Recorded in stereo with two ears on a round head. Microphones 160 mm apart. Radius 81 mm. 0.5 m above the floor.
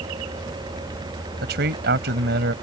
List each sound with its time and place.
1.4 s a man speaking: 65° right (ahead or behind)